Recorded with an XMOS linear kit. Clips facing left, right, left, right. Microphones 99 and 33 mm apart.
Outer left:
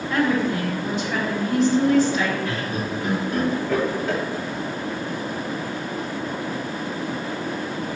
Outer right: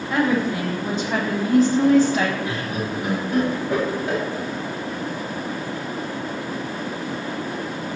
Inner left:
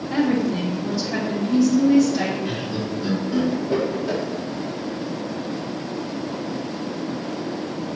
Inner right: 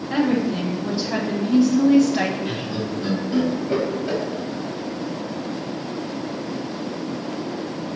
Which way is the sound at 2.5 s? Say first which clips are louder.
Even, even; 15° right (ahead or behind).